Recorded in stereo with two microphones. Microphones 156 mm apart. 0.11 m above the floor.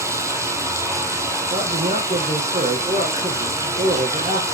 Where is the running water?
20° right (ahead or behind), 1.8 m.